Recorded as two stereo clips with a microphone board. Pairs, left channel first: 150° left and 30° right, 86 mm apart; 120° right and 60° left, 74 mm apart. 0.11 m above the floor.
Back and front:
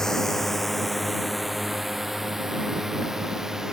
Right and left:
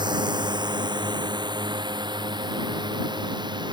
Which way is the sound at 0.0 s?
65° left.